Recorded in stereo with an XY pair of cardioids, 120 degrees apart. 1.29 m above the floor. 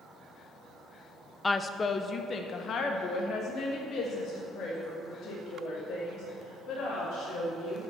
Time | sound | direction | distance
1.4 | a woman speaking | 15° left | 0.6 m